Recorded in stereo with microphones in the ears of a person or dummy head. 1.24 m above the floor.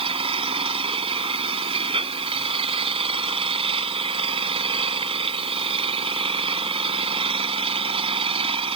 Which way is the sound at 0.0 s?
30° right (ahead or behind).